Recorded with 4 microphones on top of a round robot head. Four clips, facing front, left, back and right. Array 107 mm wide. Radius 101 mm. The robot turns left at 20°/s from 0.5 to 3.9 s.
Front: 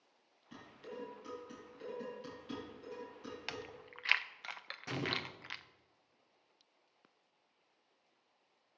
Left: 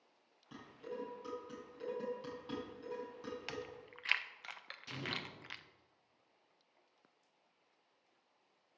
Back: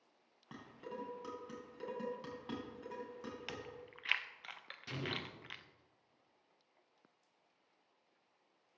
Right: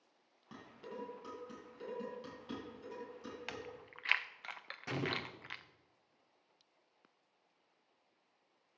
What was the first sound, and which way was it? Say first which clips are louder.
Dishes clattering: left 2 dB, back 1 dB; 160° right.